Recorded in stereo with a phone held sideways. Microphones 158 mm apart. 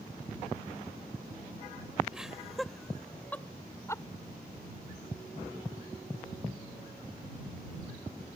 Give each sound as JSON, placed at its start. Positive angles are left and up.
{"t": 2.1, "sound": "laughter", "side_deg": -5}